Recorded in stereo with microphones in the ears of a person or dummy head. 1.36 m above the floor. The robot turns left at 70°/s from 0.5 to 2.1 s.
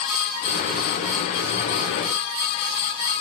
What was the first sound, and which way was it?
Only background noise.